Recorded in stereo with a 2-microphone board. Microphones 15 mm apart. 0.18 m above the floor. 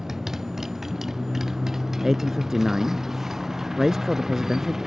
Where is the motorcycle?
25° right (ahead or behind).